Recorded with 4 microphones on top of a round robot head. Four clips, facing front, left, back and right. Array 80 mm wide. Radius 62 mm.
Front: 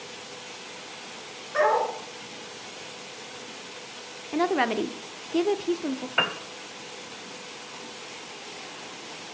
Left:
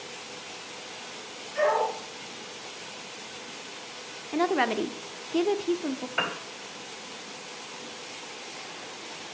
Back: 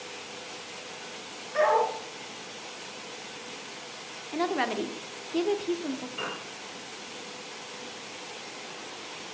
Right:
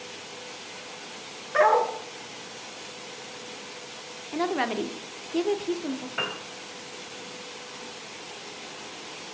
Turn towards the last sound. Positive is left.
turn(degrees=20)